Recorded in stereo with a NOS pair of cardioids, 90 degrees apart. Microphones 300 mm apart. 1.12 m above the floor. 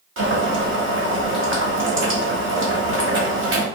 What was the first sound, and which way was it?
Boiling, 45° right.